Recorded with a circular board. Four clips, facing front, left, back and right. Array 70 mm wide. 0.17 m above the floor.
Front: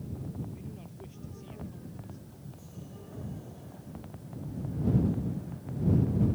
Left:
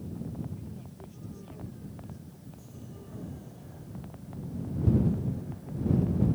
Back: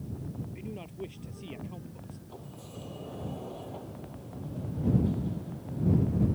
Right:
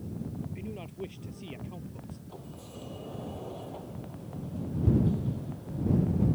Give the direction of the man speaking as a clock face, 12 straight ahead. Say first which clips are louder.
Right 6 dB, back 5 dB; 4 o'clock.